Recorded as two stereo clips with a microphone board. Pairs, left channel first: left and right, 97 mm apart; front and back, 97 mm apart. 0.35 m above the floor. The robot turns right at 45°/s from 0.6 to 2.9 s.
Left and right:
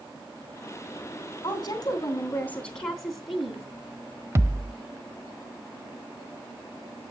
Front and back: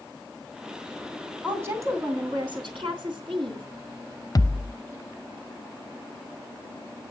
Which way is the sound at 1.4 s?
110° left.